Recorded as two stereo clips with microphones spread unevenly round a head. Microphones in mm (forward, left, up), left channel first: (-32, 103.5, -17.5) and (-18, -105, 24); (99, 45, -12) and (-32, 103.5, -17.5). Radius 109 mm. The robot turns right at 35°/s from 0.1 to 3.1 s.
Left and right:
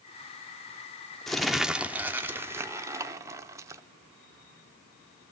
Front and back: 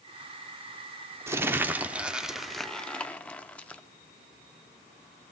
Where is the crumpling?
155° right, 0.5 m; by 3.8 s 90° right, 0.5 m.